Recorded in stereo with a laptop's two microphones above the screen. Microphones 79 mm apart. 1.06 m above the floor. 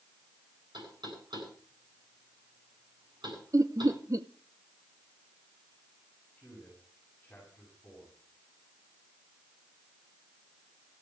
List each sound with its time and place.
0.7 s knocking: 70° right (ahead or behind), 9.5 m
3.5 s laughter: 40° right (ahead or behind), 0.9 m
6.4 s a man speaking: 20° left (ahead or behind), 8.5 m